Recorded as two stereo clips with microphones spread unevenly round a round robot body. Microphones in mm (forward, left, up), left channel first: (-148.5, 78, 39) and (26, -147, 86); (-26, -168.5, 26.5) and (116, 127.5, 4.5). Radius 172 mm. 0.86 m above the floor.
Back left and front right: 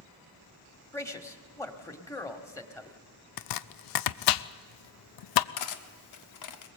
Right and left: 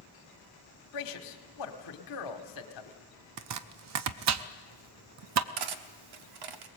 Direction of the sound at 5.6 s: 95° left.